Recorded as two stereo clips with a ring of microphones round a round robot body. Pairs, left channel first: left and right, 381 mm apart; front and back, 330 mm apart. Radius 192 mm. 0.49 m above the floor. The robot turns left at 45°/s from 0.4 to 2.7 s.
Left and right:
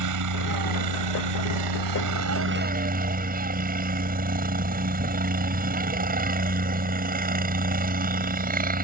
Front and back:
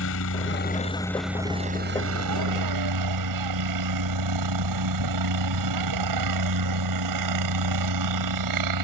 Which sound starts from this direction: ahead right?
A helicopter, at 0.0 s.